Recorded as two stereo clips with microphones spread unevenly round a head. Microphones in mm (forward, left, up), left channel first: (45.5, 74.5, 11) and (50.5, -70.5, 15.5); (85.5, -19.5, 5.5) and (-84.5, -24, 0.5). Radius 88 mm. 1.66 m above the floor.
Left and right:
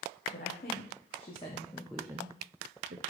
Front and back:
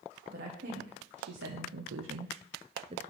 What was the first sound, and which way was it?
A woman speaking, 135° left.